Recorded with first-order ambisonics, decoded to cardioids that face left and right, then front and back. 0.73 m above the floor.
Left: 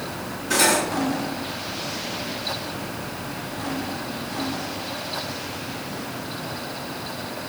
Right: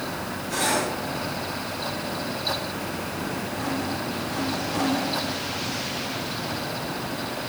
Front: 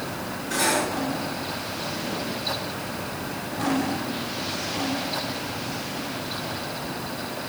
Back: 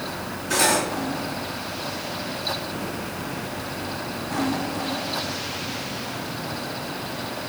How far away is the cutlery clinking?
About 5 m.